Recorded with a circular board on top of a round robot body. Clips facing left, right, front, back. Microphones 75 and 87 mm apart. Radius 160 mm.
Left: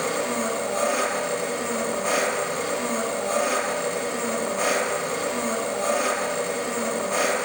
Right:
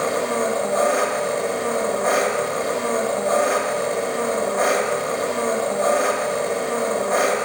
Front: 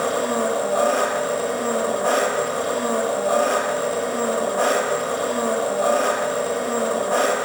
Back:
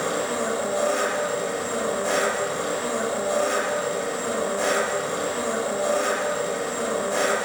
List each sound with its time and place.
0.0 s an engine running: 40° right, 0.9 m